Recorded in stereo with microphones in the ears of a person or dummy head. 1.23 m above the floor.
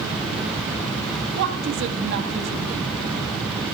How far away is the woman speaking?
About 1.8 m.